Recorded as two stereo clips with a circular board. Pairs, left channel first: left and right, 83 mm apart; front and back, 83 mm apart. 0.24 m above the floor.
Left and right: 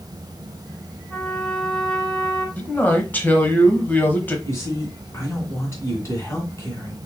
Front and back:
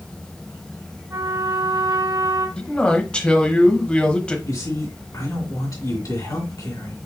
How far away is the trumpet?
About 1.8 m.